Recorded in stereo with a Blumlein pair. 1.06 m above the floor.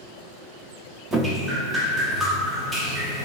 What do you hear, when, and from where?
1.1 s dripping: 20° right, 0.9 m